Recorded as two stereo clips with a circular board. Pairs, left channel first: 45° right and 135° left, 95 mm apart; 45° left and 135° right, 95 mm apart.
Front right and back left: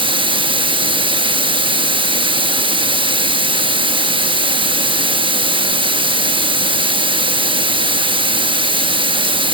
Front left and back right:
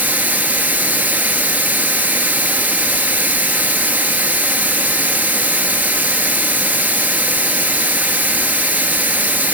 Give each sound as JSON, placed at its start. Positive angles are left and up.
{"t": 0.0, "sound": "running water", "azimuth_deg": 155, "distance_m": 0.8}